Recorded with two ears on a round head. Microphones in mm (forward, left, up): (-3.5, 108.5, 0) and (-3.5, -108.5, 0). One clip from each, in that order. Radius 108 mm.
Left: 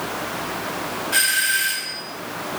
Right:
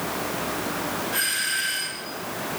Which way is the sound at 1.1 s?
65° left (ahead or behind).